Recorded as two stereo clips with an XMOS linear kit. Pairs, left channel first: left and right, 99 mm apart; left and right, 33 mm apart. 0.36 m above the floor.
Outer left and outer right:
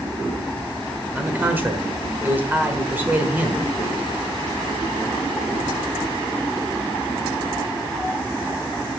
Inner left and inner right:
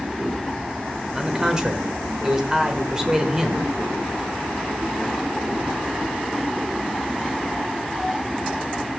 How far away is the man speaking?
About 1.2 m.